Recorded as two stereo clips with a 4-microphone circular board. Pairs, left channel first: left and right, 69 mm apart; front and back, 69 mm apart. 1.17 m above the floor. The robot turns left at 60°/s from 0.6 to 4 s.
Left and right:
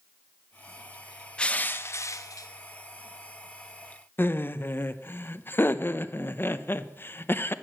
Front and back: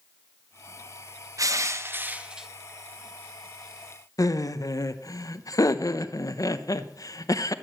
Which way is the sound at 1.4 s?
165° left.